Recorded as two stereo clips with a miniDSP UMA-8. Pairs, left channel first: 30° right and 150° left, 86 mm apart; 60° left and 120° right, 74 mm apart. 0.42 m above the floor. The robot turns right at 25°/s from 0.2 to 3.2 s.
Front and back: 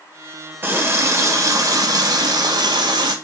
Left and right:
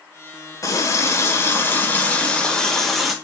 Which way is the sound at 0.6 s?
90° left.